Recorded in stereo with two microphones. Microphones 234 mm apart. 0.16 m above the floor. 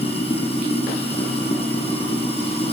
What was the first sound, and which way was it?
Running water, 25° left (ahead or behind).